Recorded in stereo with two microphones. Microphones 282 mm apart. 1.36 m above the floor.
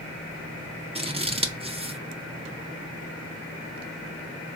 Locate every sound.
0.9 s scissors: 20° right (ahead or behind), 0.5 m